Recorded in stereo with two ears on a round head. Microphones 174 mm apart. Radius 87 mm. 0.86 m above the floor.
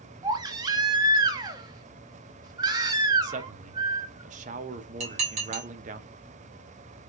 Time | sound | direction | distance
0.2 | a baby crying | 20° right (ahead or behind) | 0.6 m
3.2 | a man speaking | 40° right (ahead or behind) | 0.5 m
5.0 | dishes clattering | 35° right (ahead or behind) | 1.6 m